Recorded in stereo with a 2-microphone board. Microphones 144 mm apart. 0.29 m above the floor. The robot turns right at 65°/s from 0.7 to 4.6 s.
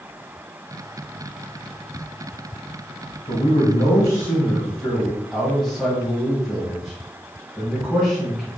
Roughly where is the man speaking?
Left.